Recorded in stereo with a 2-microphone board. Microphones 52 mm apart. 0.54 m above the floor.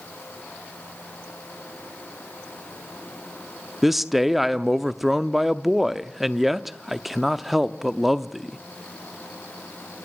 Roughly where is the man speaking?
Centre.